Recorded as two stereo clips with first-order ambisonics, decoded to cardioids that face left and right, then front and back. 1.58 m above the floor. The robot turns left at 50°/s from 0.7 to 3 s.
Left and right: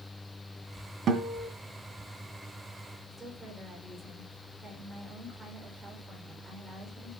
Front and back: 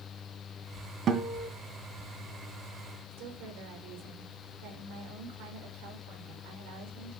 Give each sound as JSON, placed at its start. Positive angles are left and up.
{"t": 1.1, "sound": "a guitar", "azimuth_deg": -130, "distance_m": 2.0}
{"t": 3.1, "sound": "a woman speaking", "azimuth_deg": -170, "distance_m": 5.5}